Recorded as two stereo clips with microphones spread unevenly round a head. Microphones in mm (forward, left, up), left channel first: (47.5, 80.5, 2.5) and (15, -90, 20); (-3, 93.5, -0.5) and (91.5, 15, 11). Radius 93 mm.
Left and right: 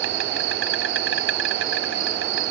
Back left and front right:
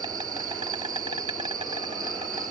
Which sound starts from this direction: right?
An insect, at 0.0 s.